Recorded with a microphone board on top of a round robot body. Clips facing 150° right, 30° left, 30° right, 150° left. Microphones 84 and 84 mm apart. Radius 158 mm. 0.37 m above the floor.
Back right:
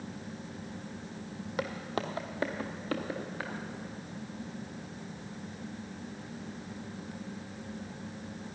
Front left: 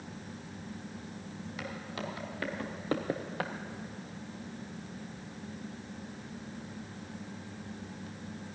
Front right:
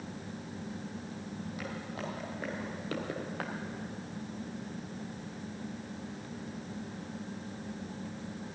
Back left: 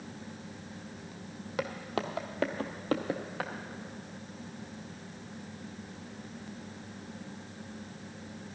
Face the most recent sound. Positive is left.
turn(degrees=60)